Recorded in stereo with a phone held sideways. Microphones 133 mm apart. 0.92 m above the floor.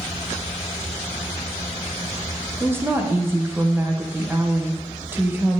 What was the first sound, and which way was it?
A woman speaking, 15° right (ahead or behind).